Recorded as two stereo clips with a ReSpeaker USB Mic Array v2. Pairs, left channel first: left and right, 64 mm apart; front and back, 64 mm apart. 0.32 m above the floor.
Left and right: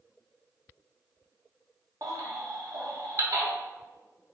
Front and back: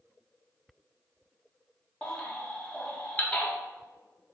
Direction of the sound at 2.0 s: 70° right.